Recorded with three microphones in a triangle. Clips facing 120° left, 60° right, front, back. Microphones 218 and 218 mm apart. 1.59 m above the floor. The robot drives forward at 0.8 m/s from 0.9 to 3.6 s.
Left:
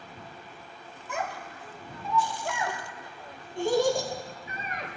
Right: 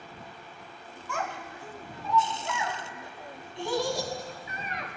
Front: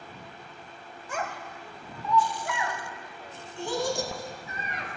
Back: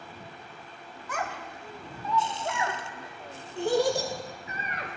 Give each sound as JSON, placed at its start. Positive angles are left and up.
{"t": 1.1, "sound": "a child speaking", "azimuth_deg": 55, "distance_m": 0.9}